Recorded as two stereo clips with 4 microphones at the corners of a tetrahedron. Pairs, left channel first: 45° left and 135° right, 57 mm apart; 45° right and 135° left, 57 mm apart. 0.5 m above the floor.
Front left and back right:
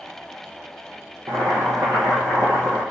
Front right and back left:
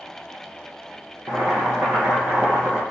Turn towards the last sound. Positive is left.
turn(degrees=-160)